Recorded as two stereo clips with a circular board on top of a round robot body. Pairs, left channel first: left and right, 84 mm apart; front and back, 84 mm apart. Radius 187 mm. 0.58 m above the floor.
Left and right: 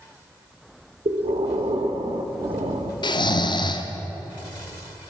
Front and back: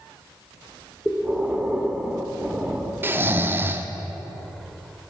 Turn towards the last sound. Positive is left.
turn(degrees=115)